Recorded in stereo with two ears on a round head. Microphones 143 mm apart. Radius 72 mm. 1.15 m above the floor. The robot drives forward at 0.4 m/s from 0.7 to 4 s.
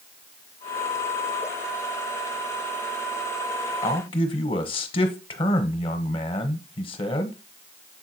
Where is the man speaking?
30° left (ahead or behind), 1.1 m; by 7.3 s 35° left (ahead or behind), 1.0 m.